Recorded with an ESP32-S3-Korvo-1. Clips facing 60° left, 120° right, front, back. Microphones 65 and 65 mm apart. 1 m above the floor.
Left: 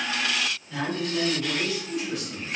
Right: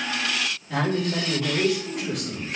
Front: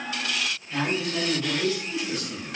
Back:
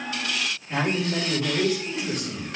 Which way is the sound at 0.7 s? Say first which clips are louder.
Right 5 dB, back 3 dB; 140° right.